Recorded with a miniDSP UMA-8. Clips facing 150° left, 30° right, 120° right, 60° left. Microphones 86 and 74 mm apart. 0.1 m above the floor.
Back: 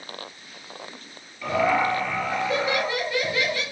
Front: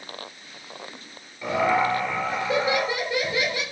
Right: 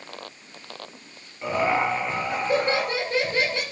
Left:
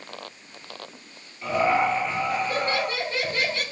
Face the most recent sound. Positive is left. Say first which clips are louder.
# even, left 1 dB
turn(degrees=-85)